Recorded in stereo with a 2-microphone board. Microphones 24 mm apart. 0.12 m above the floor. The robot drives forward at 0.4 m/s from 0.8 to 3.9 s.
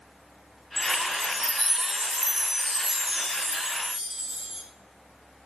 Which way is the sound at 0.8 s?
10° right (ahead or behind).